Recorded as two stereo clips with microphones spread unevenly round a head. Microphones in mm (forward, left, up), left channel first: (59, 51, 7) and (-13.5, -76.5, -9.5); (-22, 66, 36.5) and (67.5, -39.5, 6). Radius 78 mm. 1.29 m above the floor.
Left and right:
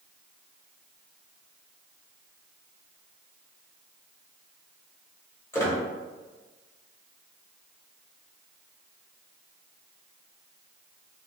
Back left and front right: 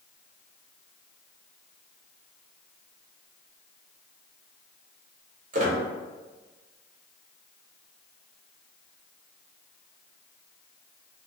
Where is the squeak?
10° right, 0.9 m.